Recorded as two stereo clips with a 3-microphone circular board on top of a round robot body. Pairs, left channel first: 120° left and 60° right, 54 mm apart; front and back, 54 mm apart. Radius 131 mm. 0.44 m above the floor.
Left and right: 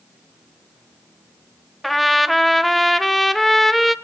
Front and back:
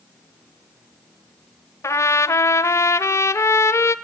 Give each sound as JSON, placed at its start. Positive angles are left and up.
{"t": 1.8, "sound": "a trumpet", "azimuth_deg": 30, "distance_m": 1.1}